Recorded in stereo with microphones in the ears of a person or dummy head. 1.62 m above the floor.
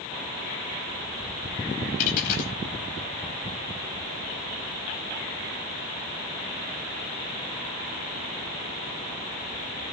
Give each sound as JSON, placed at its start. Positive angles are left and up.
{"t": 2.0, "sound": "a dropped coin", "side_deg": 45, "distance_m": 4.5}